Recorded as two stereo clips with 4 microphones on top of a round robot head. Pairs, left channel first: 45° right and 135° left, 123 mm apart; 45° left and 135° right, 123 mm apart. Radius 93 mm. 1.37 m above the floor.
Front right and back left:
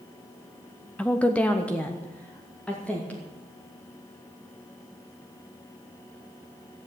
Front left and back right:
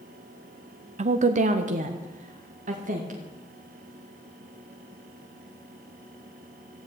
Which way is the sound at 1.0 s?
125° right.